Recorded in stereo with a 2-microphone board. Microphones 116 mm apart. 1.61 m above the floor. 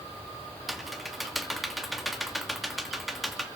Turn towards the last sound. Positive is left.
turn(degrees=0)  # may be behind; listen again after turning